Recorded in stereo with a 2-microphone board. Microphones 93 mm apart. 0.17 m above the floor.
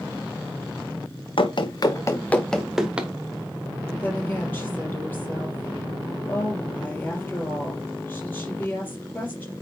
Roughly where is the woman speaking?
Centre.